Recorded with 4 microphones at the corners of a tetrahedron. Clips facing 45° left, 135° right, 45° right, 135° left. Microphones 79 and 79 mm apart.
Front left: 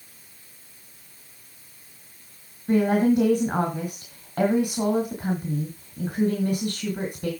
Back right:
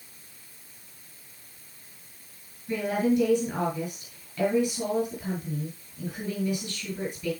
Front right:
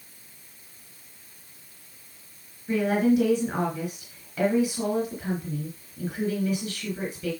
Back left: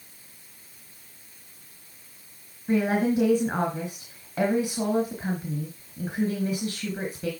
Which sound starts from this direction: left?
A woman speaking, at 2.7 s.